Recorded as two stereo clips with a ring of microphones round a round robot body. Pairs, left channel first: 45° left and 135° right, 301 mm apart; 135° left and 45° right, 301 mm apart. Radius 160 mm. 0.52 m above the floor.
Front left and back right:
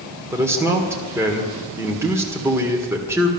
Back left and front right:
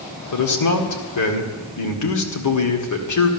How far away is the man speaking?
About 1.8 m.